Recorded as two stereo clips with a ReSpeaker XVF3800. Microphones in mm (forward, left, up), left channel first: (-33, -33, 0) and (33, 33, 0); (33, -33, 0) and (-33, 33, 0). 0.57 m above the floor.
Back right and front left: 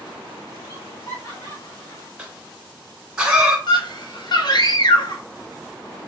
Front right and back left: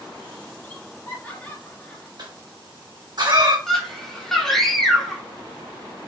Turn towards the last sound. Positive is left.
turn(degrees=-130)